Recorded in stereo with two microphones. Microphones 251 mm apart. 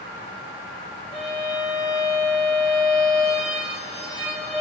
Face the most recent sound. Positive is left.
turn(degrees=0)  # may be behind; listen again after turning